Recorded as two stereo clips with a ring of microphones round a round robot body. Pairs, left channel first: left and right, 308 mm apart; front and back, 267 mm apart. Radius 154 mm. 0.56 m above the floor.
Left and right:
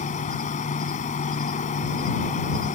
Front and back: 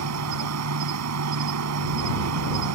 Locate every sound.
0.0 s an insect: 160° left